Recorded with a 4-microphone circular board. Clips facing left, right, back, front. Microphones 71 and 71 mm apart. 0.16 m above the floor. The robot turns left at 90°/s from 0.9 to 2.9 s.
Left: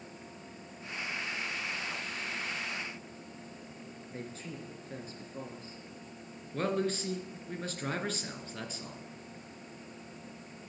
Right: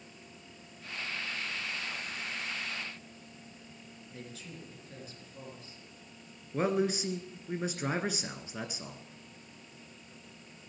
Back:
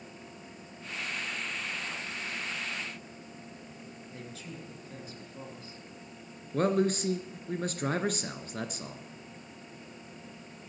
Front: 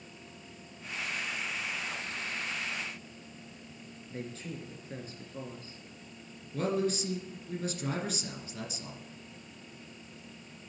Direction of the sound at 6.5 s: 165° right.